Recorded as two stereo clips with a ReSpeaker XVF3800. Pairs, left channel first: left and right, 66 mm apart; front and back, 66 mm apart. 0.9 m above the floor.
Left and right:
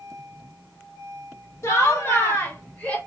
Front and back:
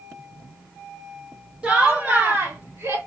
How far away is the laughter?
About 1.2 m.